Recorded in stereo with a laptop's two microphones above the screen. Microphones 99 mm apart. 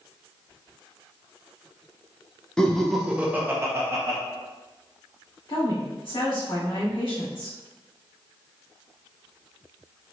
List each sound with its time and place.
2.6 s laughter: 10° left (ahead or behind), 0.8 m; by 4.2 s 30° right (ahead or behind), 0.9 m
5.5 s a woman speaking: 55° left (ahead or behind), 2.0 m